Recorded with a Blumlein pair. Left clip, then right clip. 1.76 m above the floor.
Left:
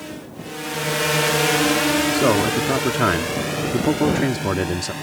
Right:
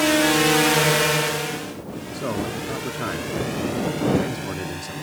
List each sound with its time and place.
0.0 s a drone: 55° right; by 5.0 s 80° left
2.1 s a man speaking: 60° left